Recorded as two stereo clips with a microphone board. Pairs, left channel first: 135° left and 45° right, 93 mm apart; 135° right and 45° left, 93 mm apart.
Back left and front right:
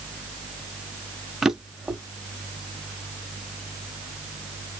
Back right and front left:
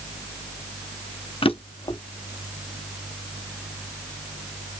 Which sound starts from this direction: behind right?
A drawer, at 1.4 s.